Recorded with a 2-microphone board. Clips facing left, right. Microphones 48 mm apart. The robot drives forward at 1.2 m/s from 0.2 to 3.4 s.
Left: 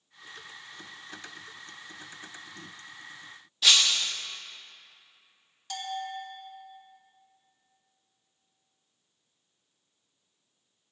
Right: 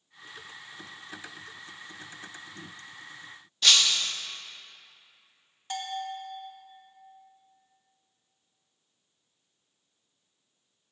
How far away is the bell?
About 1.9 m.